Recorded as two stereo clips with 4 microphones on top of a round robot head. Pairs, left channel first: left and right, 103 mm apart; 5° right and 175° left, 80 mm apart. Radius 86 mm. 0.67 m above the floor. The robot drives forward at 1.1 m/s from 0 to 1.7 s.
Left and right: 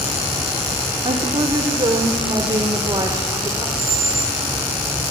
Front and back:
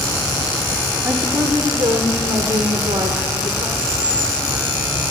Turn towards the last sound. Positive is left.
turn(degrees=-150)